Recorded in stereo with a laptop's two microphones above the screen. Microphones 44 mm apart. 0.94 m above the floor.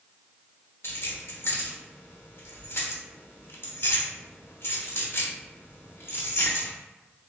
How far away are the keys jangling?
About 0.9 m.